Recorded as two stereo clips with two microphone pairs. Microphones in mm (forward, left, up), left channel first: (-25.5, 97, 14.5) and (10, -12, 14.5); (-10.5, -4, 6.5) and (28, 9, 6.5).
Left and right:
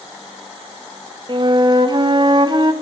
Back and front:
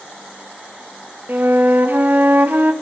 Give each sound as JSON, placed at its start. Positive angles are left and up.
{"t": 1.3, "sound": "a flute", "azimuth_deg": -20, "distance_m": 0.5}